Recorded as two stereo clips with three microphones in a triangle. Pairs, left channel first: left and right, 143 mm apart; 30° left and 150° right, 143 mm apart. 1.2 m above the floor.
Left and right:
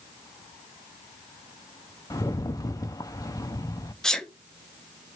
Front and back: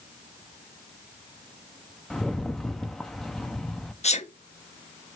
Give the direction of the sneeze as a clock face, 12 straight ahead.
12 o'clock.